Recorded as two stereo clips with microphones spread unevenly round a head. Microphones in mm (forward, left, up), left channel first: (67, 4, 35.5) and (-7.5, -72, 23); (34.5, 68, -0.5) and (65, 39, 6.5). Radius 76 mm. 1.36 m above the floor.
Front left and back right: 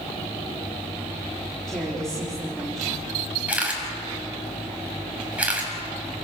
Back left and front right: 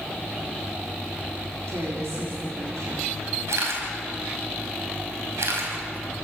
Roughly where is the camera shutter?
Ahead right.